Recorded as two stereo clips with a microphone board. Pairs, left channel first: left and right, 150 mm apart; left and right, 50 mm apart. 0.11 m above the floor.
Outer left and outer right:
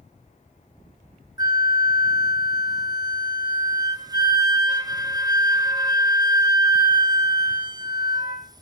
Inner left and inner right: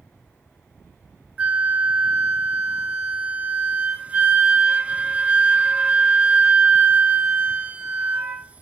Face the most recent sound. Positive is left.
turn(degrees=-25)  # may be behind; listen again after turning